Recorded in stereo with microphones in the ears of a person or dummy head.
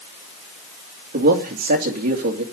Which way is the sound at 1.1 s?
45° right (ahead or behind).